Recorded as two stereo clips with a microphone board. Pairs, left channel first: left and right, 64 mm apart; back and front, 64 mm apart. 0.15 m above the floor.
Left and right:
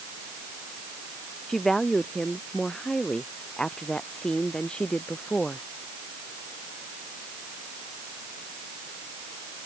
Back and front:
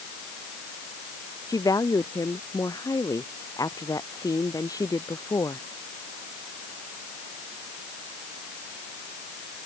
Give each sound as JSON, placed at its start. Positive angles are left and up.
{"t": 1.5, "sound": "a woman speaking", "azimuth_deg": 175}